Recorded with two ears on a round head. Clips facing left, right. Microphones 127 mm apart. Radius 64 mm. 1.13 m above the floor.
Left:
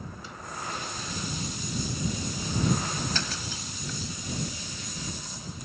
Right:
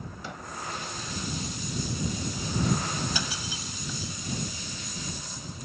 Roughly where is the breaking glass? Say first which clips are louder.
Even; centre.